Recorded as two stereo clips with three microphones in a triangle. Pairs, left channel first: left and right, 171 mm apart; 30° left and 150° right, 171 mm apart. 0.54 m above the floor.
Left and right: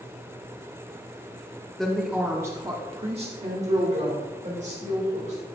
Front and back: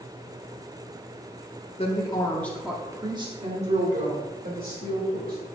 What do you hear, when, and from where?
1.8 s a woman speaking: 5° left, 1.1 m; by 5.5 s 135° right, 2.5 m